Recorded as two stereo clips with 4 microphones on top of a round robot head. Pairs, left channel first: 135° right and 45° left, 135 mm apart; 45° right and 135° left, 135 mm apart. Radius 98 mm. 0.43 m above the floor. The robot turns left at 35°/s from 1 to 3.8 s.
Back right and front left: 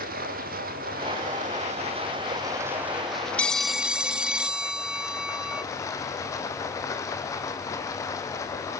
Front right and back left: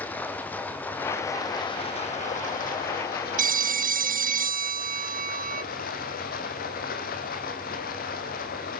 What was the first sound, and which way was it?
Running water, 30° left.